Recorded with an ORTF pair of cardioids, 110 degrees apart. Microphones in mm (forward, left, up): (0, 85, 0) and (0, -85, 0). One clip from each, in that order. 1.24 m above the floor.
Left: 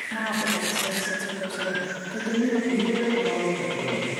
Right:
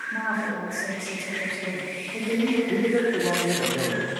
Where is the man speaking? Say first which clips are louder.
Right 2 dB; 60° right, 1.3 m.